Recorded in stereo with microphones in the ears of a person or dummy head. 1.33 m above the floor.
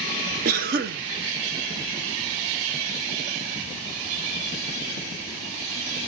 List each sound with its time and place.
0.5 s a cough: 50° right (ahead or behind), 0.8 m